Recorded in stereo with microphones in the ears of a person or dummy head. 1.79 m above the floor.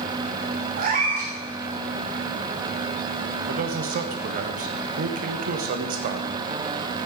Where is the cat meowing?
45° right (ahead or behind), 3.5 m.